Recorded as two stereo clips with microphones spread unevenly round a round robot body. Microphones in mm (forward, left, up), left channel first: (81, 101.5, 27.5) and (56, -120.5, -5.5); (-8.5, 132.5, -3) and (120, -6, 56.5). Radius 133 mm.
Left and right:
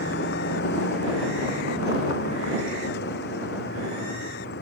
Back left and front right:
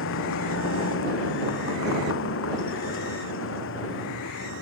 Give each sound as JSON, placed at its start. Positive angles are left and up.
{"t": 0.0, "sound": "a vehicle", "azimuth_deg": 140}